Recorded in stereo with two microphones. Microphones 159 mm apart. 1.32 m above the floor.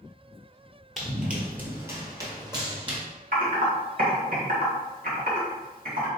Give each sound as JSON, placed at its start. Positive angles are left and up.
{"t": 1.0, "sound": "running footsteps", "side_deg": 0, "distance_m": 1.4}
{"t": 3.3, "sound": "typing on a keyboard", "side_deg": -65, "distance_m": 1.4}